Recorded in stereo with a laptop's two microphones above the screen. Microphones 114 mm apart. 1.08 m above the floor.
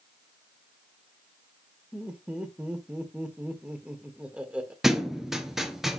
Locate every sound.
1.9 s laughter: 10° right (ahead or behind), 1.5 m
4.8 s a thud: centre (ahead or behind), 1.1 m